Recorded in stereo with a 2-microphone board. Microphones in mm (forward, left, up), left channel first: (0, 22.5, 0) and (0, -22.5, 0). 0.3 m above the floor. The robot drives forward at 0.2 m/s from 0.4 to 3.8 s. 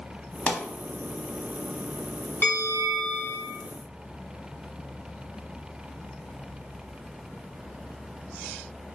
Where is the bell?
55° left (ahead or behind), 1.4 m; by 3.5 s 50° left (ahead or behind), 1.6 m.